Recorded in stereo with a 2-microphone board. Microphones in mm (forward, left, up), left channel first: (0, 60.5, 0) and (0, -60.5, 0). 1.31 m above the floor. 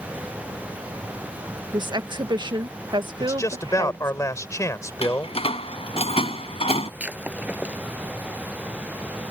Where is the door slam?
60° left (ahead or behind).